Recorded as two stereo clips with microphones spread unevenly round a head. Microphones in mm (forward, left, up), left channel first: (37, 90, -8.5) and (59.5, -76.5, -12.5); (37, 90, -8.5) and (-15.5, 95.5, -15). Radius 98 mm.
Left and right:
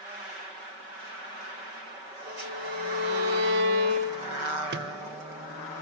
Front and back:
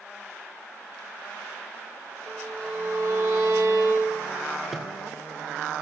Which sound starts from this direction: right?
A microwave, at 4.7 s.